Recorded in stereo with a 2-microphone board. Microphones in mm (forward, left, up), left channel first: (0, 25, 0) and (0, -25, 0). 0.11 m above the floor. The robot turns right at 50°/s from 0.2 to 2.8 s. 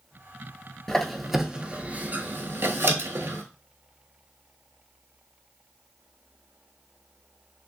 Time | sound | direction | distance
0.9 | a squeak | 10° left (ahead or behind) | 0.5 m